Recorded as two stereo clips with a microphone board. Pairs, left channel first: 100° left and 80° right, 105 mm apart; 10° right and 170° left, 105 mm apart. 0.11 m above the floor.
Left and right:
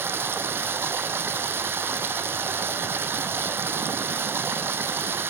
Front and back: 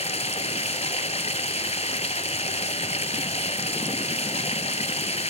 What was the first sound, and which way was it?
Running water, 10° right.